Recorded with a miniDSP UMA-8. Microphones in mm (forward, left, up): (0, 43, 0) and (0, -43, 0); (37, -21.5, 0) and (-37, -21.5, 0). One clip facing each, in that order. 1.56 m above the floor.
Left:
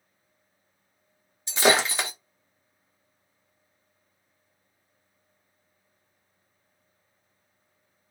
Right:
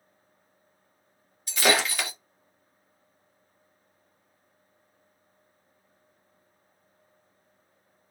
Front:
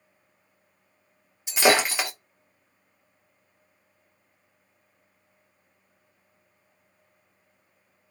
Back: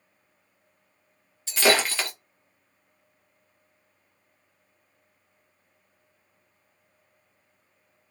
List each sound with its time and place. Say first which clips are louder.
1.5 s breaking glass: left 3 dB, front 2 dB; 55° left, 0.8 m